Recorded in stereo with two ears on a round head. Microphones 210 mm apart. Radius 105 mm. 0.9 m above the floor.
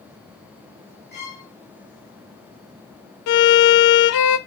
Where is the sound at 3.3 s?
80° left, 0.5 m.